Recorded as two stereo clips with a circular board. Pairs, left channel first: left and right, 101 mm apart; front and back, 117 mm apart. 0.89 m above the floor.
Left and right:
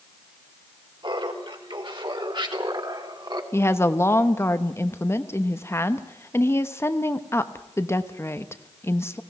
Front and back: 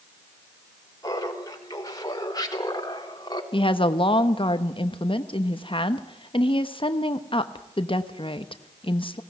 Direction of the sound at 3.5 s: 30° left.